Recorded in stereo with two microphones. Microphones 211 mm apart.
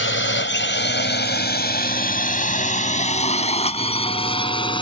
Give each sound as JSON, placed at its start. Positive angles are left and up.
{"t": 0.0, "sound": "a drone", "side_deg": 65}